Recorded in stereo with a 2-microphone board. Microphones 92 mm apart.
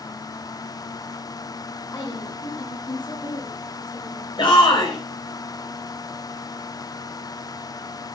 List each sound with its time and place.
1.9 s a woman speaking: 45° left (ahead or behind), 1.8 m; by 4.3 s 65° left (ahead or behind), 3 m
4.4 s a shout: 65° left (ahead or behind), 2 m